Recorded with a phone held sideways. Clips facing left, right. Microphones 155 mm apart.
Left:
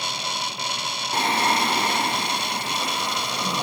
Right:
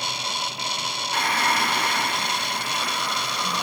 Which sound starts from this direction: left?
Singing, at 1.1 s.